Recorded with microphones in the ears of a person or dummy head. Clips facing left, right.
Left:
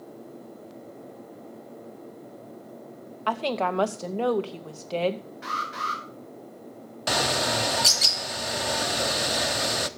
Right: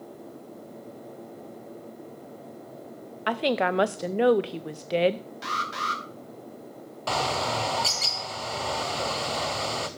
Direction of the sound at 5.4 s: 50° right (ahead or behind).